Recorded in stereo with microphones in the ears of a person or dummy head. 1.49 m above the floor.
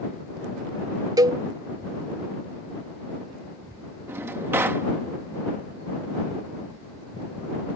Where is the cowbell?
15° right (ahead or behind).